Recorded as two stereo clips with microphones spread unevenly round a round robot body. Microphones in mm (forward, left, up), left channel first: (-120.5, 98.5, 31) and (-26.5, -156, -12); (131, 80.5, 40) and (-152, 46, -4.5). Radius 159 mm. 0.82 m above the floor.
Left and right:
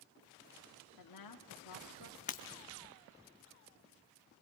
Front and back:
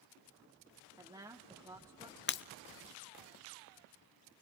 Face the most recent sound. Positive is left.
turn(degrees=50)